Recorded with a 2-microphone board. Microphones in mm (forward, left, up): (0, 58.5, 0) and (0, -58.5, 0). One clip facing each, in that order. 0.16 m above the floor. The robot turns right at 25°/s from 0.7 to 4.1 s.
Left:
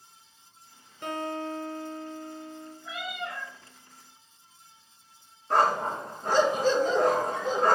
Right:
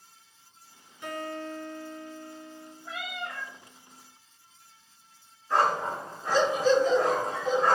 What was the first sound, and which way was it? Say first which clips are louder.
A guitar: left 3 dB; 115° left.